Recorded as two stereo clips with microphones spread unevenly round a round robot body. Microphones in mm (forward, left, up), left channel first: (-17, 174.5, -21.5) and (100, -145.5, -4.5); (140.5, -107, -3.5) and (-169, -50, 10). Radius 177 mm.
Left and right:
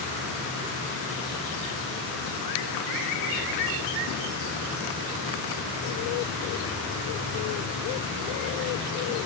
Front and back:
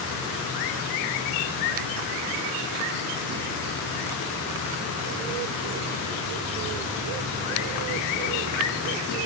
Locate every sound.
Only background noise.